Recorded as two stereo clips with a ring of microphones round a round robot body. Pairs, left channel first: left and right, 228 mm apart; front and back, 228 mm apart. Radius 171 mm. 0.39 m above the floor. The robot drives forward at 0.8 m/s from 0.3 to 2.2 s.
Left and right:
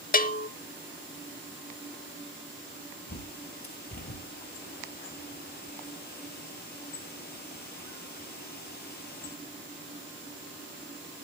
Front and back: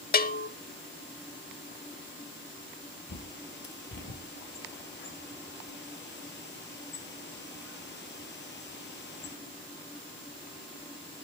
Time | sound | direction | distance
0.1 | a bell | 45° left | 0.8 m
3.1 | a bird | 40° left | 2 m